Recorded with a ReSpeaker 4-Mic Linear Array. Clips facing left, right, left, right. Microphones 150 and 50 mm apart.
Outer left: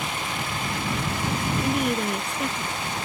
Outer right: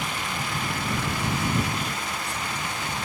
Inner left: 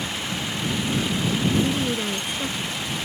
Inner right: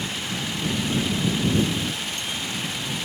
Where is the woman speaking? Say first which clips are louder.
Outer left 7 dB, inner left 3 dB; 65° left (ahead or behind).